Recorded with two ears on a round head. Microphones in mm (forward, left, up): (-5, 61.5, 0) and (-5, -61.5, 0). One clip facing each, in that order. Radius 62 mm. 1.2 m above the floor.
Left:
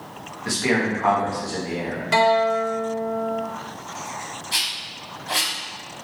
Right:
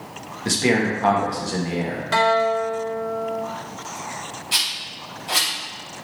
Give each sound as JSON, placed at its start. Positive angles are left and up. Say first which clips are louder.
{"t": 0.5, "sound": "a man speaking", "louder": "right 2 dB", "side_deg": -30, "distance_m": 1.8}
{"t": 2.1, "sound": "a guitar", "louder": "left 1 dB", "side_deg": 10, "distance_m": 1.0}
{"t": 4.5, "sound": "a rattle", "louder": "right 1 dB", "side_deg": -20, "distance_m": 3.5}